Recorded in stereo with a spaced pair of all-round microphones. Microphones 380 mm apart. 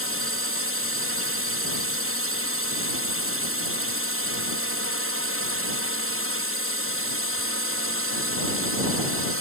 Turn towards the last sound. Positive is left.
turn(degrees=-35)  # may be behind; listen again after turning